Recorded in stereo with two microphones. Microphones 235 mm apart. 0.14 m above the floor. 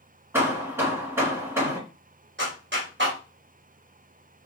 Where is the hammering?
10° right (ahead or behind), 1.7 m.